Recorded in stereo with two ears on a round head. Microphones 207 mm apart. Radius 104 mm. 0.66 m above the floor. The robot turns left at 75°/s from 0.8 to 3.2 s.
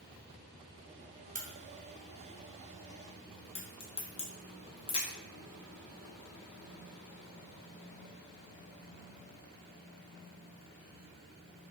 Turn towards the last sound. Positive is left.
turn(degrees=25)  # may be behind; listen again after turning